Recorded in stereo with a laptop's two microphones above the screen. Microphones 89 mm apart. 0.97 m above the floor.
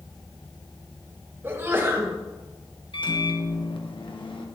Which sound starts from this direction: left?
A microwave, at 2.9 s.